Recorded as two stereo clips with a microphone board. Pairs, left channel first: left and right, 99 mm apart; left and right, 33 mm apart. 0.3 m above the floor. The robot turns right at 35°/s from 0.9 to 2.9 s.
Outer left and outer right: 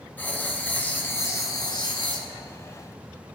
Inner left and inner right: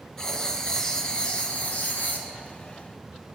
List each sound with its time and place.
0.2 s writing: 20° left, 0.8 m; by 2.3 s 65° left, 0.8 m